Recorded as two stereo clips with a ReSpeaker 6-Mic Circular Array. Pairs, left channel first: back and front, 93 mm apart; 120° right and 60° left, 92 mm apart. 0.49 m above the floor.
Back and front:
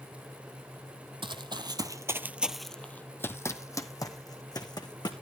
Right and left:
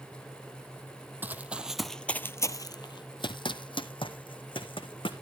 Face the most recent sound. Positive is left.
turn(degrees=-140)